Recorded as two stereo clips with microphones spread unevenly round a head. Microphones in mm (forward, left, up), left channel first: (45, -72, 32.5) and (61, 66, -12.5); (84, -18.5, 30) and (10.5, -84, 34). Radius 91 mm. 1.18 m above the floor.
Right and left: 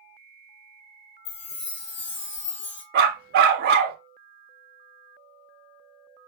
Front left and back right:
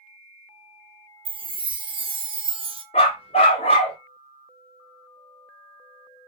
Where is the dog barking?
85° left, 0.9 m.